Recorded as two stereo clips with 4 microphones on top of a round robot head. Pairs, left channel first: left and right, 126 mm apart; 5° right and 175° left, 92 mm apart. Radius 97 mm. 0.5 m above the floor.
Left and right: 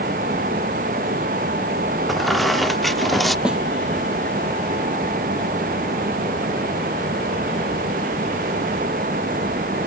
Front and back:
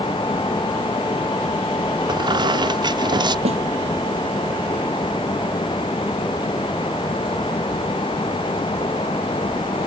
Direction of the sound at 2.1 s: Straight behind.